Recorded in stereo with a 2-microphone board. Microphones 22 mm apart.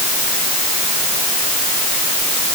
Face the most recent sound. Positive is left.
No sound to turn to.